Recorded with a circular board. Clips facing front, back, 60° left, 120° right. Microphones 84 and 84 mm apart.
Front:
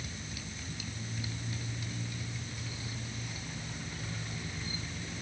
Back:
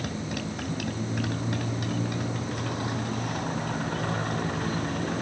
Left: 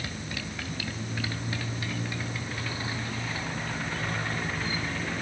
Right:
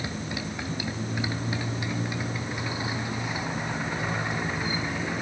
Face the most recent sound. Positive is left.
turn(degrees=165)